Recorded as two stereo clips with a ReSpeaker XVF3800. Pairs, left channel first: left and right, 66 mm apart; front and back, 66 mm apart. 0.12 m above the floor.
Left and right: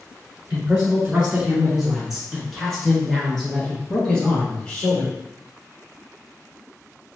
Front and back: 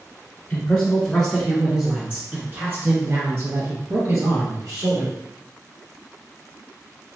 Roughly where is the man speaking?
Ahead right.